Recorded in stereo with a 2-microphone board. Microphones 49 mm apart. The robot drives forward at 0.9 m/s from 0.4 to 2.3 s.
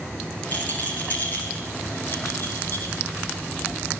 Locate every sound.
0.5 s a rattle: 35° left (ahead or behind), 7.5 m; by 2.9 s 40° left (ahead or behind), 6 m